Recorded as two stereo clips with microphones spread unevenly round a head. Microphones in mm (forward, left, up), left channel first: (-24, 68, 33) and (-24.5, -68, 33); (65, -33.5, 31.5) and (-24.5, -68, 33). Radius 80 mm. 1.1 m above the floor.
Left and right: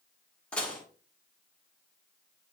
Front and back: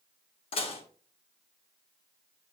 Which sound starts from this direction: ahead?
Dishes clattering, at 0.5 s.